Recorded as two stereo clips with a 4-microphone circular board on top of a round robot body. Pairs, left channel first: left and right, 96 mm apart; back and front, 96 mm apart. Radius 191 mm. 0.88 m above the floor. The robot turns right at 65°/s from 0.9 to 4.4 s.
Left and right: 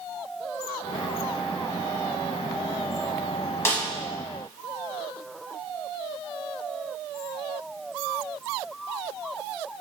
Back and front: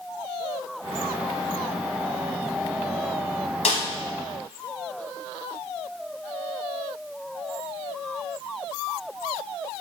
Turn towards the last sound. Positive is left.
turn(degrees=-155)